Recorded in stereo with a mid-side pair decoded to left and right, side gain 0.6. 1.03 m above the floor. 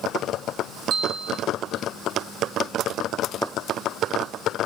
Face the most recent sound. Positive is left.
turn(degrees=-55)